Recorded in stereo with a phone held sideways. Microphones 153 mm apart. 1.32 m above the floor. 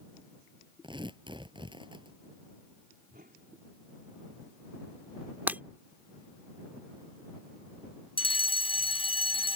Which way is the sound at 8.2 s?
35° left (ahead or behind).